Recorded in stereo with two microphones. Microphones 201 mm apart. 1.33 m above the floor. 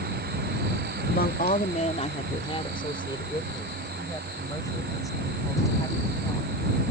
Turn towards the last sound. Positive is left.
turn(degrees=15)  # may be behind; listen again after turning